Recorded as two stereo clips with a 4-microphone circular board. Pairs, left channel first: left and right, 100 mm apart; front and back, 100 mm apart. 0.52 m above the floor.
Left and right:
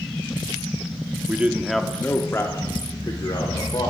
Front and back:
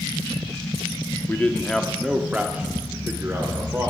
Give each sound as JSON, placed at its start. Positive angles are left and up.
{"t": 1.3, "sound": "a man speaking", "azimuth_deg": -45, "distance_m": 0.6}